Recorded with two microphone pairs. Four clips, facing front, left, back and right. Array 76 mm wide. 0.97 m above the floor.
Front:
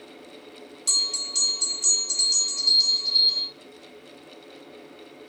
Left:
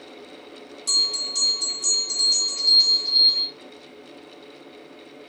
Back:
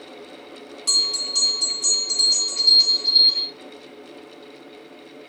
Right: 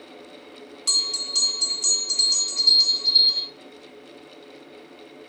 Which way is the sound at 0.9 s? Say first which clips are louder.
Left 1 dB, back 5 dB; 150° right.